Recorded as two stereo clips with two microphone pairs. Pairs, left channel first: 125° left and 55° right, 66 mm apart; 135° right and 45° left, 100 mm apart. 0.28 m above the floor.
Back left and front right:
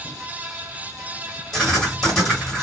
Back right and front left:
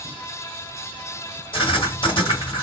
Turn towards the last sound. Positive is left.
turn(degrees=-145)